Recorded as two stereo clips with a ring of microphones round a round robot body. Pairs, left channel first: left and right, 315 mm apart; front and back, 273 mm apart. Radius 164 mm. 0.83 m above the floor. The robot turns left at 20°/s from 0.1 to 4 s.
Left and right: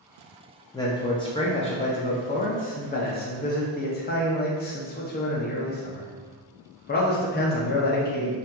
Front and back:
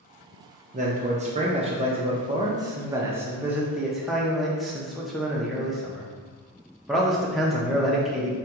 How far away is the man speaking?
About 0.5 m.